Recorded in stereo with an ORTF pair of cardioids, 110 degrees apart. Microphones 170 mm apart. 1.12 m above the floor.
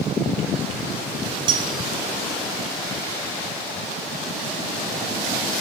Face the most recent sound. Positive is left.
turn(degrees=-25)